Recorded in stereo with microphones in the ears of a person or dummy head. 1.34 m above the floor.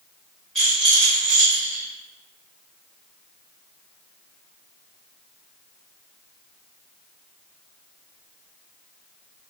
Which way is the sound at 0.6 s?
Centre (ahead or behind).